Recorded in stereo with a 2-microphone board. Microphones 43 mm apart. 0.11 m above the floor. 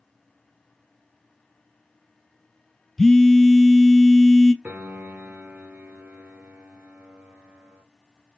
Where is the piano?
35° right (ahead or behind), 0.8 m.